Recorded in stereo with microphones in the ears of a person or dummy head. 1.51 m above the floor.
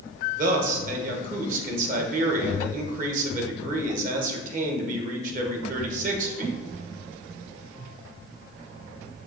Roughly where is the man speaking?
Right.